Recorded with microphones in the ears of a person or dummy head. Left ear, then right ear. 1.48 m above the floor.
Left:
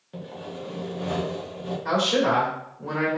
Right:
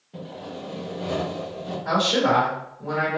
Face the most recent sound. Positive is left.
turn(degrees=75)  # may be behind; listen again after turning